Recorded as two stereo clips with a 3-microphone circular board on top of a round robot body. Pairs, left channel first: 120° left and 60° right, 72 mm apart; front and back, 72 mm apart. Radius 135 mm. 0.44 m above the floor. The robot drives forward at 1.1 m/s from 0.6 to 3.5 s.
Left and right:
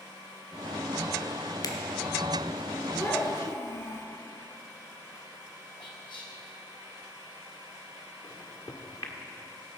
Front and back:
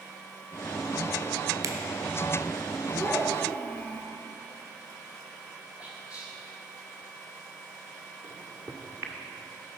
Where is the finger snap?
145° left, 1.3 m; by 1.7 s 150° left, 1.4 m.